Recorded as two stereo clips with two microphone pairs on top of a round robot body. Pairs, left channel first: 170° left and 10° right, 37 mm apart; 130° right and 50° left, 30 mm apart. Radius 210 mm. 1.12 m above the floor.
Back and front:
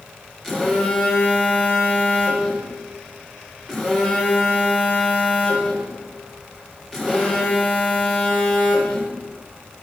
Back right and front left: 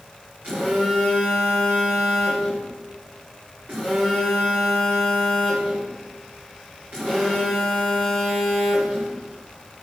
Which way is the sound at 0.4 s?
85° left.